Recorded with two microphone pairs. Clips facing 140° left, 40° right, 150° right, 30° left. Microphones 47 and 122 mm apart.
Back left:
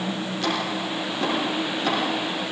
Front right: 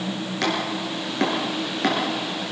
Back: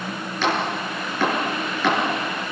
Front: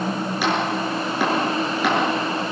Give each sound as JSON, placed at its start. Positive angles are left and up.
{"t": 0.4, "sound": "chopping", "azimuth_deg": -50, "distance_m": 7.0}